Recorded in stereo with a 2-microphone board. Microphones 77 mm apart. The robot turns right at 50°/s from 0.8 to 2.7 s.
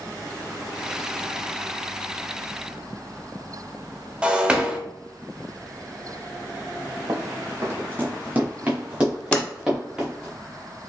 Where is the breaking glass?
10° right (ahead or behind), 0.6 m.